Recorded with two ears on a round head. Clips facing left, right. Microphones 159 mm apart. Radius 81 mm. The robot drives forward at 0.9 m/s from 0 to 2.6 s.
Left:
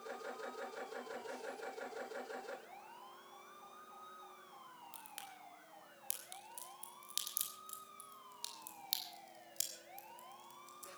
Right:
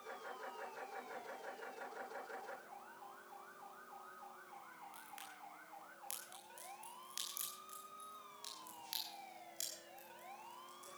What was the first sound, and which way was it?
A crack, 50° left (ahead or behind).